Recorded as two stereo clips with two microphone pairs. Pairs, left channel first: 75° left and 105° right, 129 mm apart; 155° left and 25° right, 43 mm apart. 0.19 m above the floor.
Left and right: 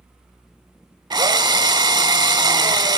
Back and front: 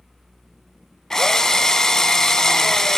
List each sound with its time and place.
1.1 s a drill: 140° right, 0.6 m